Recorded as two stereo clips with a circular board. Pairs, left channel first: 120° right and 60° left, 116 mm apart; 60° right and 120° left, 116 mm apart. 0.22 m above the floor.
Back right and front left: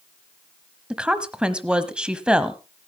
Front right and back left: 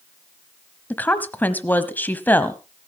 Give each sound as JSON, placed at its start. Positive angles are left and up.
{"t": 0.9, "sound": "a woman speaking", "azimuth_deg": -10, "distance_m": 1.2}